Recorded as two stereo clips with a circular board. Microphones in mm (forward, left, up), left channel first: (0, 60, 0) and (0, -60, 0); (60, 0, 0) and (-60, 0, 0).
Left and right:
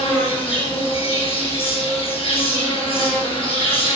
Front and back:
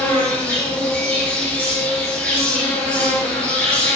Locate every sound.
0.0 s an insect: 80° left, 3.5 m